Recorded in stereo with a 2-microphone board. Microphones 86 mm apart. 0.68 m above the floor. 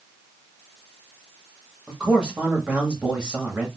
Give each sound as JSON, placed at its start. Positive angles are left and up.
{"t": 1.9, "sound": "a man speaking", "side_deg": -10, "distance_m": 1.3}